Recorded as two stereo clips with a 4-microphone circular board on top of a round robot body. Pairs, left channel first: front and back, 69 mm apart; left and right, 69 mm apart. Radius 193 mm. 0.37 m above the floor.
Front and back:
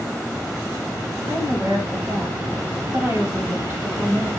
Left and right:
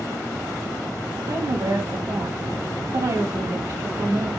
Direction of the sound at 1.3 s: 115° right.